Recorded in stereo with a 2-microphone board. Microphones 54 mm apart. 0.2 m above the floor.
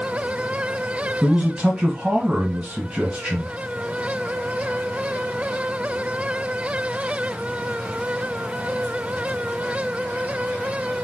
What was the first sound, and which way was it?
A man speaking, 25° right (ahead or behind).